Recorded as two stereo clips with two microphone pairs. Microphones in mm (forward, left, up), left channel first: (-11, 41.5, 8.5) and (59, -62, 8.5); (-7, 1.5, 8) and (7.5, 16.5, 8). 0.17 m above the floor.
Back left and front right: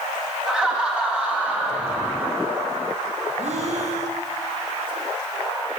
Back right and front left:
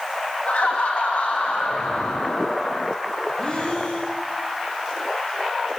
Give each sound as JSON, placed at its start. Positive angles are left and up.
{"t": 0.5, "sound": "laughter", "azimuth_deg": -140, "distance_m": 8.0}
{"t": 3.4, "sound": "breathing", "azimuth_deg": -85, "distance_m": 8.5}